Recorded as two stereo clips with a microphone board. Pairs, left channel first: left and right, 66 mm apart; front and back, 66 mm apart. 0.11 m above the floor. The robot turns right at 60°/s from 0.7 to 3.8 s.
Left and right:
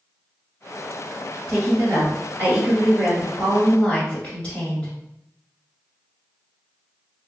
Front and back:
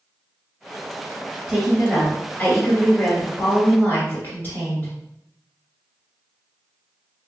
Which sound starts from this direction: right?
A woman speaking, at 1.5 s.